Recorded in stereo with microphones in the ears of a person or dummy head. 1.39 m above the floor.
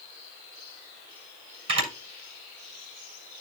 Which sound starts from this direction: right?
A camera shutter, at 1.7 s.